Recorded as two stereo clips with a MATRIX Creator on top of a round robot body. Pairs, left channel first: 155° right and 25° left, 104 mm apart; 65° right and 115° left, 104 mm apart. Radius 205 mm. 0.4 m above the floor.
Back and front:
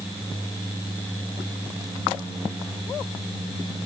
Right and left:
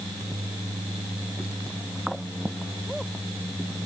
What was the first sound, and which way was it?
Only background noise.